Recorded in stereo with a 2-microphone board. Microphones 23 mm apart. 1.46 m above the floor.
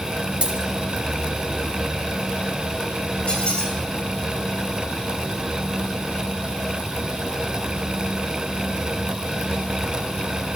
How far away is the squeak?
About 3.5 m.